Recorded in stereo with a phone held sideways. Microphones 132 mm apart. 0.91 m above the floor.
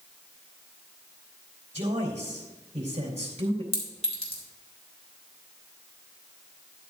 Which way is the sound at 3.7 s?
50° left (ahead or behind).